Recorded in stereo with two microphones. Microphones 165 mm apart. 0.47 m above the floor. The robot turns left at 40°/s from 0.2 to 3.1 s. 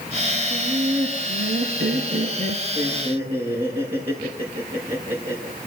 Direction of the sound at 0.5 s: 40° right.